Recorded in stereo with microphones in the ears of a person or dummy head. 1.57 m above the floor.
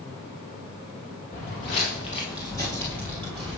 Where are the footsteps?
35° left (ahead or behind), 1.9 m; by 3.6 s centre (ahead or behind), 1.9 m.